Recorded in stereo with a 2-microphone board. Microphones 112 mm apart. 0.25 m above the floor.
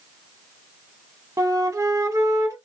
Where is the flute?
30° right (ahead or behind), 0.6 m.